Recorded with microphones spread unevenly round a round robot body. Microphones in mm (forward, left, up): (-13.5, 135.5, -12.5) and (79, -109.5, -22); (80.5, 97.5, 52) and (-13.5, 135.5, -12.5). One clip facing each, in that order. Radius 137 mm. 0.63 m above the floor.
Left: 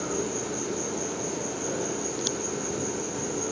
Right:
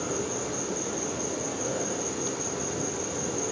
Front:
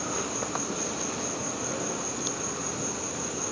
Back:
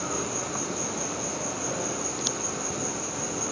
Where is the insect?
165° right, 2 m.